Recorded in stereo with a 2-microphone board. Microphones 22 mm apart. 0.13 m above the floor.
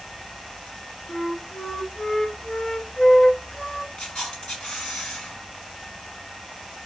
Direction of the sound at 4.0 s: 40° left (ahead or behind).